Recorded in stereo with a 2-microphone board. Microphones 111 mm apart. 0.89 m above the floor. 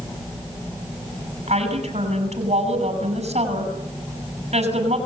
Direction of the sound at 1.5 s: 80° right.